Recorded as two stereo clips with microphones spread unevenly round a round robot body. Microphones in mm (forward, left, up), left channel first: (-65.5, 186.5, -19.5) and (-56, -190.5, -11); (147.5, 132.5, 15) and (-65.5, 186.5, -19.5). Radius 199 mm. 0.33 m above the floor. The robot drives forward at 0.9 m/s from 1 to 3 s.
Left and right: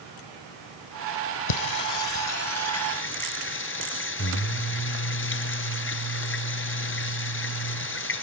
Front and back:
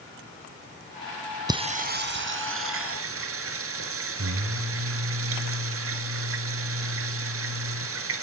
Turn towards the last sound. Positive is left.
turn(degrees=150)